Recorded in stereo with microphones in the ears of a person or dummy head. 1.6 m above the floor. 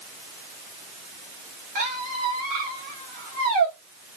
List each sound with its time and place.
1.8 s a squeak: 50° right (ahead or behind), 1.3 m